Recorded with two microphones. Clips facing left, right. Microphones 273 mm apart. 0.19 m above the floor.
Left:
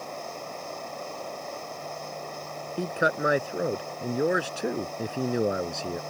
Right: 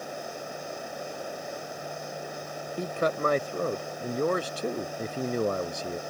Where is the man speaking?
10° left (ahead or behind).